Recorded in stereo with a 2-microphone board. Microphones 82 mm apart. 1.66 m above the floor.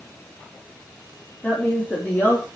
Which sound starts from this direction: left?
A woman speaking, at 1.4 s.